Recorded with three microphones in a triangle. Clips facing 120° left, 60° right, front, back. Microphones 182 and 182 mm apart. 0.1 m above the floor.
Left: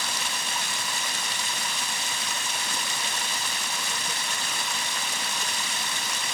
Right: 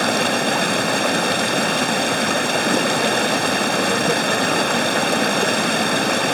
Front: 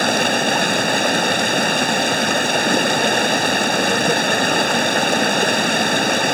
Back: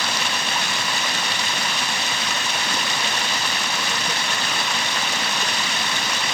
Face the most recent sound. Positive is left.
turn(degrees=-35)